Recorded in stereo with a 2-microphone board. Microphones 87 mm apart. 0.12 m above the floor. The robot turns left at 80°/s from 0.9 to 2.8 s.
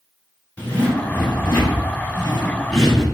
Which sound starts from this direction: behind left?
A zipper, at 0.6 s.